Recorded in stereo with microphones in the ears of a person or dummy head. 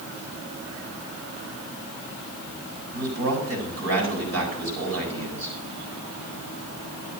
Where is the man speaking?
75° right (ahead or behind), 7.5 m.